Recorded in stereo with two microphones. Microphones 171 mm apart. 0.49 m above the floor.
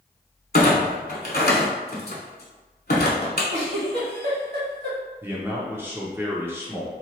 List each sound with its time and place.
0.5 s a clunk: 65° left (ahead or behind), 0.7 m
3.5 s a giggle: 85° right, 1.5 m
5.2 s a man speaking: 15° right (ahead or behind), 0.7 m